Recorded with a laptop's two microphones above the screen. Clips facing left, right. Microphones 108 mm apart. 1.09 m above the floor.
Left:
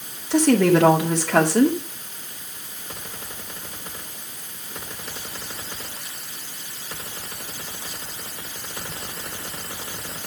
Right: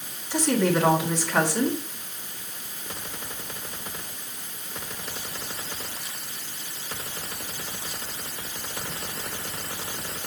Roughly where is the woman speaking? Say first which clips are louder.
Left 7 dB; left.